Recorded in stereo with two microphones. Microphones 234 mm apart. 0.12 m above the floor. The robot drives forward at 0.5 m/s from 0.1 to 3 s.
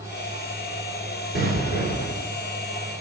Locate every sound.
1.4 s an explosion: 45° left (ahead or behind), 2.5 m